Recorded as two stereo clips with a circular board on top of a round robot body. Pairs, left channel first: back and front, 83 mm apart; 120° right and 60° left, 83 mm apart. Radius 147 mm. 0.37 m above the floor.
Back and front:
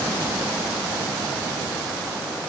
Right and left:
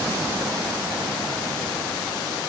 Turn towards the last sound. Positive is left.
No sound to turn to.